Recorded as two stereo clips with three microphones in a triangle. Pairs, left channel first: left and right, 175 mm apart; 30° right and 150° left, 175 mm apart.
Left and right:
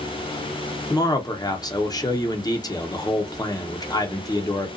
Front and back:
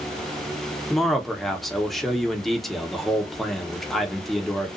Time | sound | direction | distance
0.9 | a man speaking | 60° left | 0.7 m